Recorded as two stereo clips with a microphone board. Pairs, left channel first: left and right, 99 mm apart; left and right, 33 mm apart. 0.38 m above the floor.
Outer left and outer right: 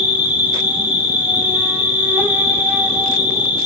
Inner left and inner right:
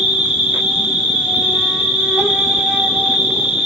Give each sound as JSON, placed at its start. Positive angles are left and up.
{"t": 0.0, "sound": "an insect", "side_deg": -20, "distance_m": 0.7}